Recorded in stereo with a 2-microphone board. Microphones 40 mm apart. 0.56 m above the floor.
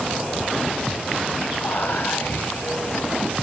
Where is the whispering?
60° left (ahead or behind), 3 m.